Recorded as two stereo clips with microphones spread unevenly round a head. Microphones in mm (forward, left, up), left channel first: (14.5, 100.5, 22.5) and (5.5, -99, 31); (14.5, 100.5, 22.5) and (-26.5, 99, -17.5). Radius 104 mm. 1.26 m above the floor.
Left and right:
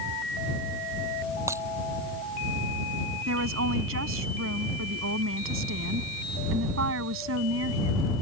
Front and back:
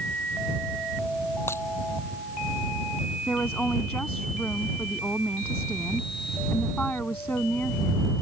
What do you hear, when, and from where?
1.5 s breaking glass: 15° right
3.3 s a woman speaking: 70° right